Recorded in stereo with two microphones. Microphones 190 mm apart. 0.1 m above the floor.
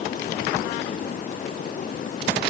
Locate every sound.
Only background noise.